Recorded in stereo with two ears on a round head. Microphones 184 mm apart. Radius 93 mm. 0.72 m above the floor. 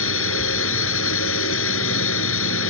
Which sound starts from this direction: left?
A drone, at 0.0 s.